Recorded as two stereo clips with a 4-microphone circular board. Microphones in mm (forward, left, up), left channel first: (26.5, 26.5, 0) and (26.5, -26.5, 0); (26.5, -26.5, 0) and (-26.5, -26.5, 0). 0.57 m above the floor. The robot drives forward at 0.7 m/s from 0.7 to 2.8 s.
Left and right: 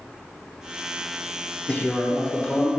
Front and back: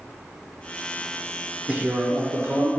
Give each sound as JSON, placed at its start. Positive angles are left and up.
{"t": 1.7, "sound": "a man speaking", "azimuth_deg": 130, "distance_m": 1.0}